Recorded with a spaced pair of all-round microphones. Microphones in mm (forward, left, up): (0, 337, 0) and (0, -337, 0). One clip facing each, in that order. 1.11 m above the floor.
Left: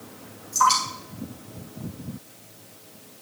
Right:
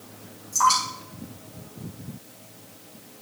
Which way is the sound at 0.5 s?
70° right (ahead or behind).